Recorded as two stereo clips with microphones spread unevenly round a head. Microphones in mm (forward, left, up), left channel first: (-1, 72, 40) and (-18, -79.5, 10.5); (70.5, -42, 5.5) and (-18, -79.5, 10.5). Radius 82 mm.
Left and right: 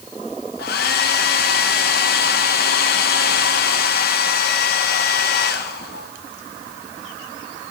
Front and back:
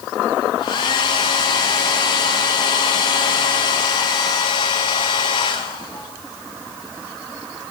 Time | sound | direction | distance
0.6 | a hair dryer | 70° left | 1.2 m